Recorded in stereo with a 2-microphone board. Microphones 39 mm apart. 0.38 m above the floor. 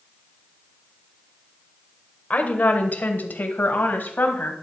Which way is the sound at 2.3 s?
45° left (ahead or behind).